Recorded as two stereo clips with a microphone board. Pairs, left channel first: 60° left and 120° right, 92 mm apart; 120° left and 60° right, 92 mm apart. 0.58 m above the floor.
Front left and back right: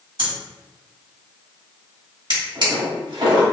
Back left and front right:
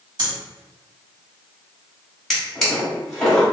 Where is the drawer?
155° right, 1.6 m.